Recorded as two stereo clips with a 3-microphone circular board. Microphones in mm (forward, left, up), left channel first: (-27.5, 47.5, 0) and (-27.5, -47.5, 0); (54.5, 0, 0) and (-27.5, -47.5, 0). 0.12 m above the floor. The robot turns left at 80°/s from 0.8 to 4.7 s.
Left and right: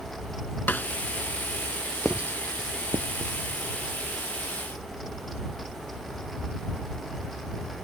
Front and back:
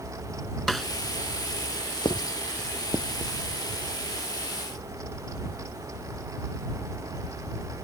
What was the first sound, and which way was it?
A snare drum, 115° left.